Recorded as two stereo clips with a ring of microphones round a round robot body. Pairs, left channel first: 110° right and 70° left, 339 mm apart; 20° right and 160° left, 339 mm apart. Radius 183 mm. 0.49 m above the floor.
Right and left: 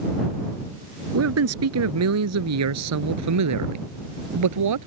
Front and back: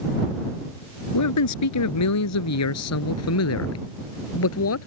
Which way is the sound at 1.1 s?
20° left.